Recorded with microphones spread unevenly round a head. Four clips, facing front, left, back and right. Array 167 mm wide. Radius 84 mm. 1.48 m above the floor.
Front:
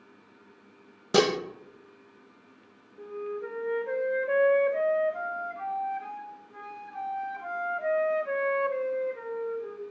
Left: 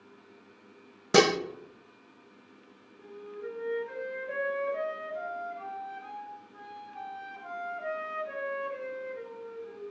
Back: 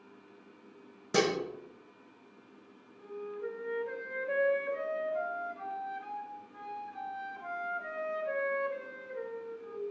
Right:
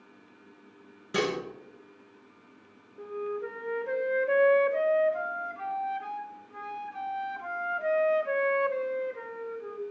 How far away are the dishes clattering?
About 0.9 m.